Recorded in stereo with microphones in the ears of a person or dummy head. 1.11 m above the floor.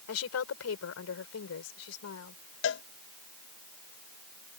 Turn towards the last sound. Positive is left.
turn(degrees=60)  # may be behind; listen again after turning